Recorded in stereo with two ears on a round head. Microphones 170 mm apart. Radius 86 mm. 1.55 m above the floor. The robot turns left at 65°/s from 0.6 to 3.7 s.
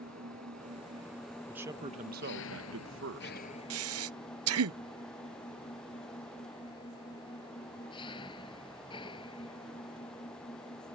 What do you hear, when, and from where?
0.0 s an engine running: 135° right; by 10.9 s 25° left
1.5 s a man speaking: 5° right; by 3.5 s 135° right
3.7 s breathing: 75° right (ahead or behind)